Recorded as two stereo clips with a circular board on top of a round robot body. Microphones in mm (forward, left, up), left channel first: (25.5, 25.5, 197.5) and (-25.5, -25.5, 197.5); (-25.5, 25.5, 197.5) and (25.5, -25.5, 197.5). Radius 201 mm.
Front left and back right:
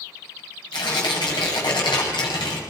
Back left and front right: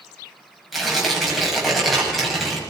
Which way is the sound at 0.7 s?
45° left.